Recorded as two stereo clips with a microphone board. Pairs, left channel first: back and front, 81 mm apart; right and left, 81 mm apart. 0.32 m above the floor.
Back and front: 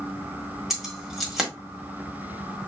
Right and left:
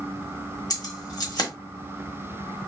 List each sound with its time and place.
0.7 s keys jangling: 85° right, 1.2 m